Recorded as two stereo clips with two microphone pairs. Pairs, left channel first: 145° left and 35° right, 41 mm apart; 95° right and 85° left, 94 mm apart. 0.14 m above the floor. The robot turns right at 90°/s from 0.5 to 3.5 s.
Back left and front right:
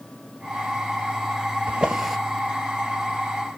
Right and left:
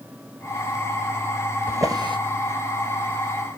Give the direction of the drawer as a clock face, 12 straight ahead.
11 o'clock.